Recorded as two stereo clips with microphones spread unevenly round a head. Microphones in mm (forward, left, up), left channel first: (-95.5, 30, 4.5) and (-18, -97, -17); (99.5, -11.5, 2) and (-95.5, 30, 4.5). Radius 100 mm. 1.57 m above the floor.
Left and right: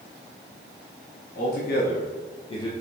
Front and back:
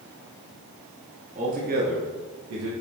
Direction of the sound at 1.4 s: 115° left.